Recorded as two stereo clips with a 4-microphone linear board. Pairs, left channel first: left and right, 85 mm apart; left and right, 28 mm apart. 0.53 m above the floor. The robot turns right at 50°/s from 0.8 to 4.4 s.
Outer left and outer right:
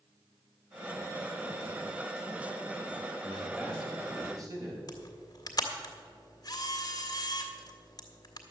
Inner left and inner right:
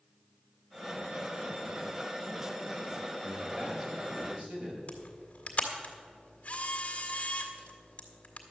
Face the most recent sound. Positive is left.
turn(degrees=45)  # may be behind; listen again after turning